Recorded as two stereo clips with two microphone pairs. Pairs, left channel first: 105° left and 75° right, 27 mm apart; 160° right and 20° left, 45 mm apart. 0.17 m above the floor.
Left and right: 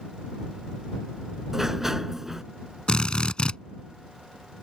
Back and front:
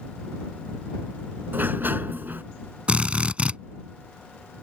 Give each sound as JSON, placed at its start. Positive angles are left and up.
{"t": 1.5, "sound": "a sliding door", "azimuth_deg": -5}
{"t": 2.9, "sound": "a drill", "azimuth_deg": 70}